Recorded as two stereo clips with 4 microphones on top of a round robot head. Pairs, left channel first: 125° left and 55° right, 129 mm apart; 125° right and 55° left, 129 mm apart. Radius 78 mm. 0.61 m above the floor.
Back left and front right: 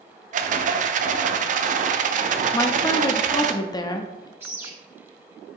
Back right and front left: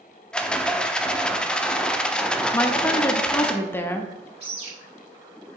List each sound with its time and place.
0.3 s a rattle: 45° right, 0.6 m
2.5 s a woman speaking: 170° left, 0.6 m
4.4 s a bird: 15° left, 2.5 m